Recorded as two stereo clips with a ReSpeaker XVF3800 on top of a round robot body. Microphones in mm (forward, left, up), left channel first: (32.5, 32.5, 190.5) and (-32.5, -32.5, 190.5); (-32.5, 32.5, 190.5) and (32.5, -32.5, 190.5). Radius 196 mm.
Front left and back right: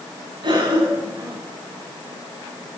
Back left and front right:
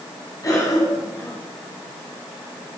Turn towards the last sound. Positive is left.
turn(degrees=-170)